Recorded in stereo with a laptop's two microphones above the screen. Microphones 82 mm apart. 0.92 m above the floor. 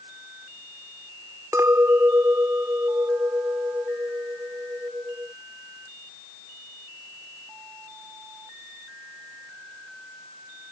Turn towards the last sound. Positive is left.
turn(degrees=-35)  # may be behind; listen again after turning